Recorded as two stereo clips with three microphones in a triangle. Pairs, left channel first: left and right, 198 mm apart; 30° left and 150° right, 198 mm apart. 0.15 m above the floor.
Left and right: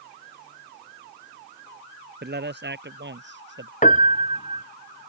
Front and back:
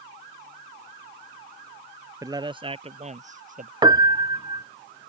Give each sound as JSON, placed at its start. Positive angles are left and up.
{"t": 2.2, "sound": "a man speaking", "azimuth_deg": -80}
{"t": 3.8, "sound": "a piano", "azimuth_deg": 140}